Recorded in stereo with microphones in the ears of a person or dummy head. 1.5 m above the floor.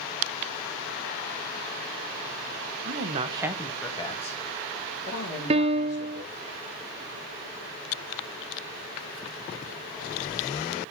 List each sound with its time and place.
2.9 s a woman speaking: 55° right (ahead or behind), 1.3 m; by 6.3 s 55° left (ahead or behind), 4.5 m
5.5 s a piano: 30° right (ahead or behind), 0.6 m